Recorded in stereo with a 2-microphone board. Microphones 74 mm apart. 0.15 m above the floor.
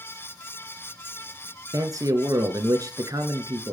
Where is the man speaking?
55° right (ahead or behind), 2.5 m.